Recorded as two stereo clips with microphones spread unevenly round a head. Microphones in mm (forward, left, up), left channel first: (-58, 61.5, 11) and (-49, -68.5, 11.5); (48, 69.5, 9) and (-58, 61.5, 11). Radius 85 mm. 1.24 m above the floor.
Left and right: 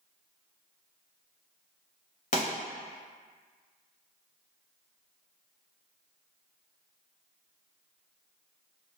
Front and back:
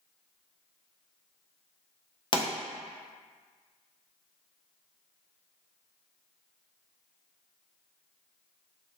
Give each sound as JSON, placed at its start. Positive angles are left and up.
{"t": 2.3, "sound": "a pop", "azimuth_deg": 50, "distance_m": 0.6}